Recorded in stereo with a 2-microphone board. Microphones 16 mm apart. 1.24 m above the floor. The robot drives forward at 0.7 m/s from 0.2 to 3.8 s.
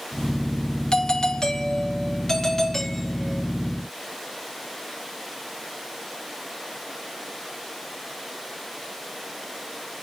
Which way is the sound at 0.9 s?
65° left (ahead or behind).